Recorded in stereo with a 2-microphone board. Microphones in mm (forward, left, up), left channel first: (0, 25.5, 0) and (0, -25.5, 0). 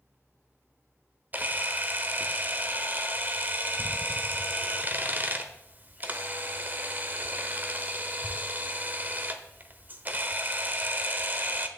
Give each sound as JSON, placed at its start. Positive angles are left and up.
{"t": 1.3, "sound": "a camera shutter", "side_deg": -35, "distance_m": 1.1}